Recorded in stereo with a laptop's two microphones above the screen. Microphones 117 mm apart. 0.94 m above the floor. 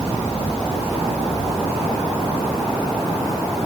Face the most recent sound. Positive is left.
No sound to turn to.